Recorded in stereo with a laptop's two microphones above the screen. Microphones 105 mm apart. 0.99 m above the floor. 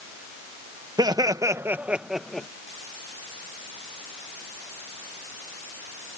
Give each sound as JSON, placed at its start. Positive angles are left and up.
{"t": 1.0, "sound": "laughter", "side_deg": -40}